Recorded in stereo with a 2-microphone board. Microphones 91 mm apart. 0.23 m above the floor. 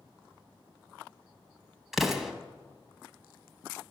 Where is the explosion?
5° right (ahead or behind), 0.7 m.